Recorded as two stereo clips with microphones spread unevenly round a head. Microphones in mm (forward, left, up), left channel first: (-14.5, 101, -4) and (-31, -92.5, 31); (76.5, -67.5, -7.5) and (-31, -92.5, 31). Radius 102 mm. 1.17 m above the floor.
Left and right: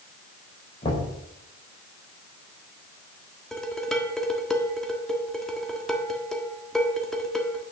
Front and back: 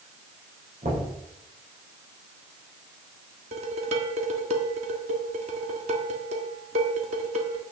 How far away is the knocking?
About 5 m.